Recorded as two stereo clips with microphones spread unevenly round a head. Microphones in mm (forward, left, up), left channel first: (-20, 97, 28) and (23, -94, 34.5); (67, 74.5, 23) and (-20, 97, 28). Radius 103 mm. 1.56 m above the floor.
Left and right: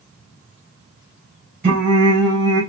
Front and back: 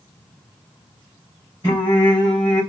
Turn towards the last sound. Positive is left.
turn(degrees=-115)